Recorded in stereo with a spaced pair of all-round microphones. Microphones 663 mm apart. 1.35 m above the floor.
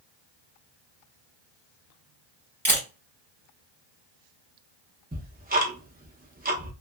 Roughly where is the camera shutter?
Centre.